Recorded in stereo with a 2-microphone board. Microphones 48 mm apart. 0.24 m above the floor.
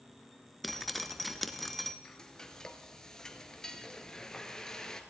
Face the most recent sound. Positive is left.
turn(degrees=15)  # may be behind; listen again after turning